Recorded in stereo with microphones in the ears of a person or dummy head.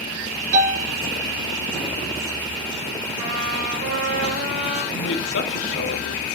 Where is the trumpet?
60° right (ahead or behind), 4.5 m.